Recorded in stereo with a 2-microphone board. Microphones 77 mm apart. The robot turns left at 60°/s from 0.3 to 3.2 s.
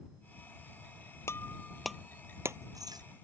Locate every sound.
1.3 s breaking glass: 35° left (ahead or behind); by 3.0 s 65° right (ahead or behind)